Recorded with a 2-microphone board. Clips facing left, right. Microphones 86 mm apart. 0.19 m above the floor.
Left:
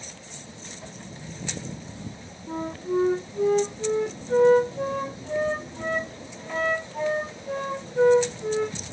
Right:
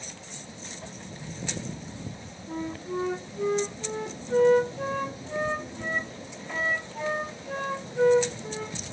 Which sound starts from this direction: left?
A flute, at 2.5 s.